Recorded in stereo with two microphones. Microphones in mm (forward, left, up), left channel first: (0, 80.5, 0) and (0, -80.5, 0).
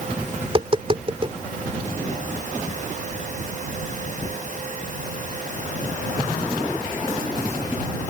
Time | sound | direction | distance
0.4 | tapping | 35° right (ahead or behind) | ?